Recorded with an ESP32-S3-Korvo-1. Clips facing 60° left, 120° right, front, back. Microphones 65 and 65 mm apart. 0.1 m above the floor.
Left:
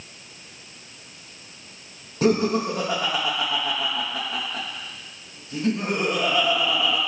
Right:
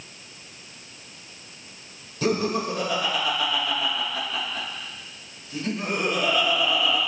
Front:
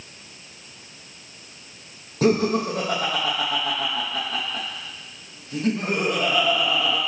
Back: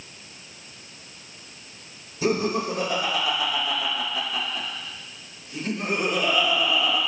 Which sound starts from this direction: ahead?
Laughter, at 2.2 s.